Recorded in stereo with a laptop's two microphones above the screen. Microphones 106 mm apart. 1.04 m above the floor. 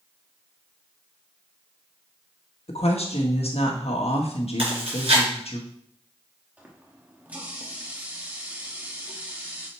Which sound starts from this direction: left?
A woman speaking, at 2.7 s.